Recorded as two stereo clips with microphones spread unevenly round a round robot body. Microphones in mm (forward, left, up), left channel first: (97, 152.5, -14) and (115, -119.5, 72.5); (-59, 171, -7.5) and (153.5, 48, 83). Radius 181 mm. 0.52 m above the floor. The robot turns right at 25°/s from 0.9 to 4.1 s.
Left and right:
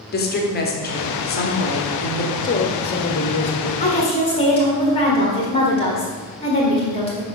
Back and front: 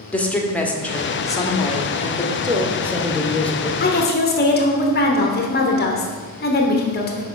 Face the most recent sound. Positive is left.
turn(degrees=150)